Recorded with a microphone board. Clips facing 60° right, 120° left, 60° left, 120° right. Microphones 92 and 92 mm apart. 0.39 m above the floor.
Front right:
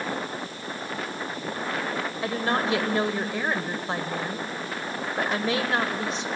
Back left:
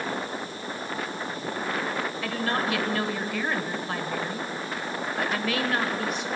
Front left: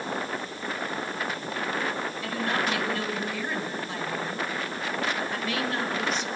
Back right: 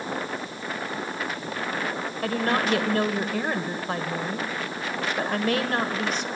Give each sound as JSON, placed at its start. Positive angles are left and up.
{"t": 2.2, "sound": "a woman speaking", "azimuth_deg": -115, "distance_m": 1.7}